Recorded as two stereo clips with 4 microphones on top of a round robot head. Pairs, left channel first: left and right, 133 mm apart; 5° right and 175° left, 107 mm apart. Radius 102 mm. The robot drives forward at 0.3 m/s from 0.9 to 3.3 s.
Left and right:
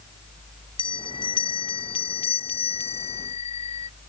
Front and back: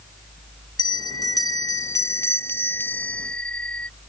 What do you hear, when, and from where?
0.8 s a bell: 40° left; by 3.9 s 75° left